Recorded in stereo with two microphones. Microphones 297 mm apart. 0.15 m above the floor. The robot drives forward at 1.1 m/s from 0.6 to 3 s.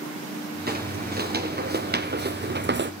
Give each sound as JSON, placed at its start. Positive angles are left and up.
{"t": 0.7, "sound": "footsteps", "side_deg": -30, "distance_m": 1.9}